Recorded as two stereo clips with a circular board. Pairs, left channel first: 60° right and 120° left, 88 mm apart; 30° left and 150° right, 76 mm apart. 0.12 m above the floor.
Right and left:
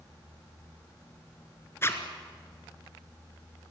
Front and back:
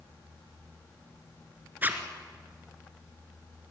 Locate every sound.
1.8 s a zipper: 100° right, 2.0 m